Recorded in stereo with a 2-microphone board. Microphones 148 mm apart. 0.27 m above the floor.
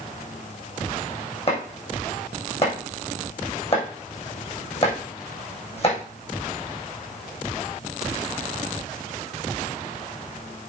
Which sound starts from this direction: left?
Chopping, at 1.5 s.